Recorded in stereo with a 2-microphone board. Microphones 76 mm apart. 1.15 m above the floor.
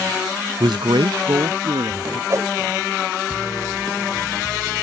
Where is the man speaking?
70° right (ahead or behind); by 2.2 s 80° right.